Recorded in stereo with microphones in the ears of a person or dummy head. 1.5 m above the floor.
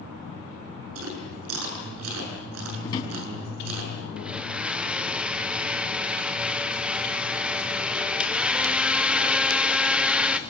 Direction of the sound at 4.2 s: 5° right (ahead or behind).